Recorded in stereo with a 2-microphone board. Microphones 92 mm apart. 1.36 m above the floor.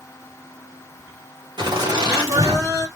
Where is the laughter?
50° right (ahead or behind), 1.6 m; by 2.9 s 40° right (ahead or behind), 2 m.